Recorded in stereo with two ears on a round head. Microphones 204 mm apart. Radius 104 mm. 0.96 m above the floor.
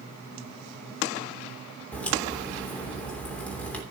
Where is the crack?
5° left (ahead or behind), 3 m.